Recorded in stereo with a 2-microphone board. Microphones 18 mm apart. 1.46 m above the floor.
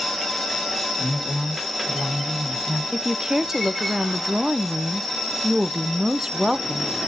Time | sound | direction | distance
1.0 | a man speaking | 5° left (ahead or behind) | 2.5 m
2.9 | a woman speaking | 35° right (ahead or behind) | 0.6 m